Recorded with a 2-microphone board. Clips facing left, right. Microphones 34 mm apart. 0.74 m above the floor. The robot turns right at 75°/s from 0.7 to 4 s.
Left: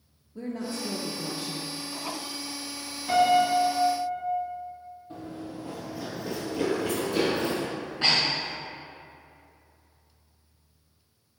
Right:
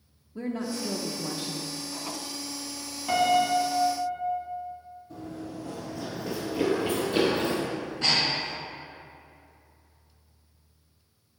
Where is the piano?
140° right, 1.5 m; by 4.5 s 70° right, 1.5 m.